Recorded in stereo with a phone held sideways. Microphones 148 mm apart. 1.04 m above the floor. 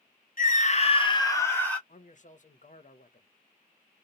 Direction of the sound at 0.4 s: 65° left (ahead or behind).